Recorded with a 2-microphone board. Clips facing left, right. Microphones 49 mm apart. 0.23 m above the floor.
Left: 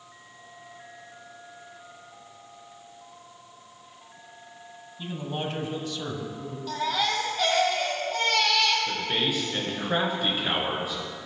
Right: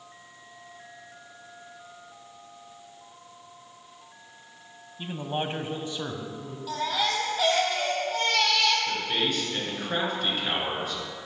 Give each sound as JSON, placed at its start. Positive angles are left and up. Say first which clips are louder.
{"t": 5.0, "sound": "a man speaking", "louder": "right 2 dB", "side_deg": -25, "distance_m": 1.2}
{"t": 6.7, "sound": "a baby crying", "louder": "left 1 dB", "side_deg": -5, "distance_m": 2.5}
{"t": 8.9, "sound": "a man speaking", "louder": "even", "side_deg": 10, "distance_m": 3.0}